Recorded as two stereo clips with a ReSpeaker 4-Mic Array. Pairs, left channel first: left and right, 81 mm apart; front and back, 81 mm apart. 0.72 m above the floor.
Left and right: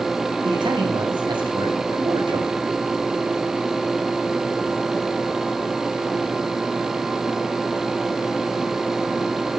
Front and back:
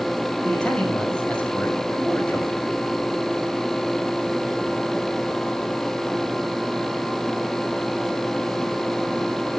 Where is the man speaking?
80° right, 5 m.